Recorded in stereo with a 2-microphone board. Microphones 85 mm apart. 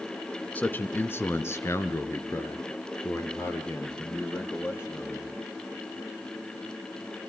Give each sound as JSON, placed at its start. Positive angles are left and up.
{"t": 0.6, "sound": "a man speaking", "side_deg": 20, "distance_m": 1.1}